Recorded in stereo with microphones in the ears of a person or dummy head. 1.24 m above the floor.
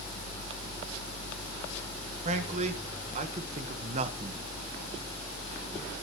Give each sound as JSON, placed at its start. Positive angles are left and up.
{"t": 2.2, "sound": "a man speaking", "side_deg": -40, "distance_m": 1.9}